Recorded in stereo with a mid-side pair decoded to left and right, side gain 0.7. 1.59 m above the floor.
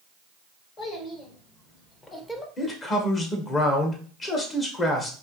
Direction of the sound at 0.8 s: 40° left.